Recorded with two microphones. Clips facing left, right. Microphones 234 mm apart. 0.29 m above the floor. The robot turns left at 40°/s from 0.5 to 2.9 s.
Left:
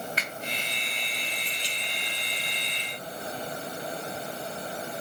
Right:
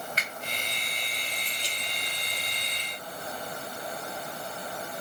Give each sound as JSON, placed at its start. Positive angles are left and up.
{"t": 0.2, "sound": "a finger snap", "side_deg": -45, "distance_m": 1.7}